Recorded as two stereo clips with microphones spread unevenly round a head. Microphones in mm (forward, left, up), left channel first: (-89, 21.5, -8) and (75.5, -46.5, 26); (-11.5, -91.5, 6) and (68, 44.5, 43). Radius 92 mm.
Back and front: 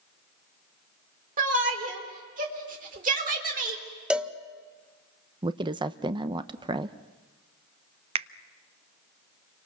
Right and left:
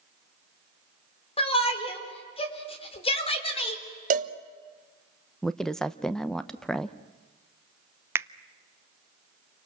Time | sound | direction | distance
1.4 | a shout | 70° right | 4 m
4.1 | a cowbell | 75° left | 1.0 m
5.4 | a woman speaking | 75° right | 0.7 m
8.2 | a finger snap | 25° right | 0.6 m